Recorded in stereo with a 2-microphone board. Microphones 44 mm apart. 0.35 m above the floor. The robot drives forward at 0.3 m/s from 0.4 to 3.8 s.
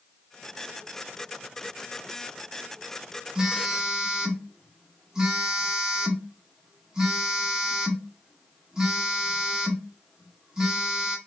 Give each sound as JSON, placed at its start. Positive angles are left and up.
{"t": 3.4, "sound": "a phone buzzing", "side_deg": -15, "distance_m": 0.6}